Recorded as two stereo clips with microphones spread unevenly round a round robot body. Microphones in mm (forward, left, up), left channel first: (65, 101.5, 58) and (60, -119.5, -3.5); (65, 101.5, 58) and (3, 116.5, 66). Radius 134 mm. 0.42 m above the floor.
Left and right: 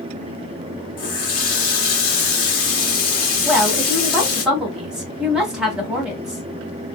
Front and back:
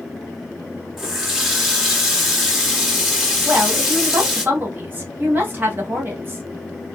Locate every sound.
1.0 s a running tap: 80° left, 1.2 m
3.5 s a woman speaking: 150° right, 1.2 m